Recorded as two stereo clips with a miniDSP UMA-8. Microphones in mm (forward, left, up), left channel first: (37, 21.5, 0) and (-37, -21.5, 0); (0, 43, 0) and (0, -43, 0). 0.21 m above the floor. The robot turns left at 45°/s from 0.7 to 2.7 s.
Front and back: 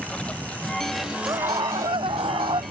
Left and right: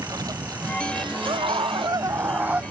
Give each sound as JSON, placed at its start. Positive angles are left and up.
{"t": 0.0, "sound": "a lawn mower", "azimuth_deg": -50}
{"t": 1.3, "sound": "a scream", "azimuth_deg": -105}